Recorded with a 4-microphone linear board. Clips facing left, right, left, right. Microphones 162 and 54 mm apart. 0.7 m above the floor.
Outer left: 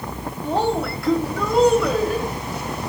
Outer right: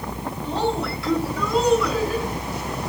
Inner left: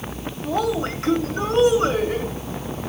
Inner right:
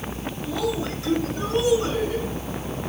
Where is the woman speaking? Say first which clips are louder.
Outer left 3 dB, inner left 4 dB; 50° left (ahead or behind), 1.8 m.